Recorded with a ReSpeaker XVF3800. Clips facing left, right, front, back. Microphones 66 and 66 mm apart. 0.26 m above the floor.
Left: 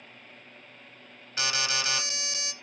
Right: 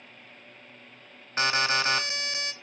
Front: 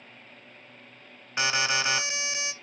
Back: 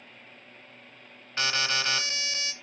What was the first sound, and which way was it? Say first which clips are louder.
An alarm: right 5 dB, front 2 dB; 65° right.